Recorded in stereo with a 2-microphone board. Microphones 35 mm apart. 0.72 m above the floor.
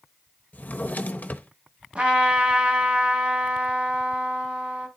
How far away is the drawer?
About 0.7 m.